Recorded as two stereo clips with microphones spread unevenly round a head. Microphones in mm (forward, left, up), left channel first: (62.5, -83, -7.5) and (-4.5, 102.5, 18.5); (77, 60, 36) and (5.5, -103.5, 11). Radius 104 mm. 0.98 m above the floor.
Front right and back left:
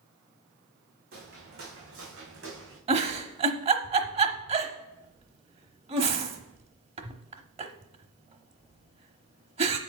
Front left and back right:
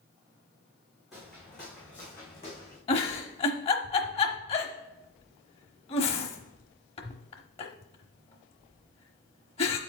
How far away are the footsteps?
About 3.5 m.